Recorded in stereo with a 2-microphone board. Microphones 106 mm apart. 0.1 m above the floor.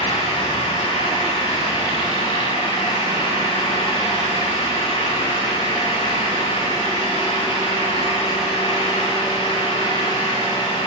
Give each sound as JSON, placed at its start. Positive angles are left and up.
{"t": 0.0, "sound": "an engine running", "side_deg": 70, "distance_m": 9.5}